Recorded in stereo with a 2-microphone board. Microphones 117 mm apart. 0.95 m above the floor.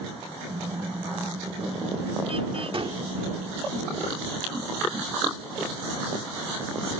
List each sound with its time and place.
0.5 s a car horn: 50° right (ahead or behind)
2.7 s a gunshot: 50° right (ahead or behind)